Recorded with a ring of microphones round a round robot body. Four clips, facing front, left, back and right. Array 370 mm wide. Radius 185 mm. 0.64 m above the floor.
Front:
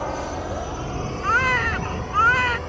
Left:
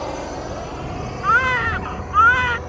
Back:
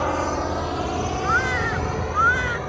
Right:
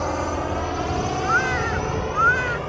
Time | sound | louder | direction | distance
0.0 | a drone | right 3 dB, back 5 dB | 165° right | ?
1.2 | a baby crying | left 7 dB, front 4 dB | 50° left | ?